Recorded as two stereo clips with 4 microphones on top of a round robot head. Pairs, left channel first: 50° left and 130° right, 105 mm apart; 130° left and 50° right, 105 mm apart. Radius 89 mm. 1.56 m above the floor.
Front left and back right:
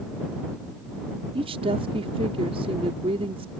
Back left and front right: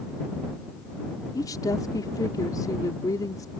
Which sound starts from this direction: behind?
A woman speaking, at 1.4 s.